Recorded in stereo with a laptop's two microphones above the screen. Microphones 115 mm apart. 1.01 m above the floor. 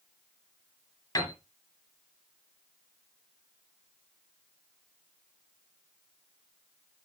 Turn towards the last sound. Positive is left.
turn(degrees=40)  # may be behind; listen again after turning